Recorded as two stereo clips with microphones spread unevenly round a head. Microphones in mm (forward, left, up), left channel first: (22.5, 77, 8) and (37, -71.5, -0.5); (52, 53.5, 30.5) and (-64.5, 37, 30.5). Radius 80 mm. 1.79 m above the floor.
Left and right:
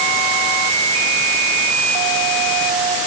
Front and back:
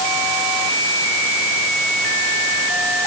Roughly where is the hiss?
No hiss in this recording.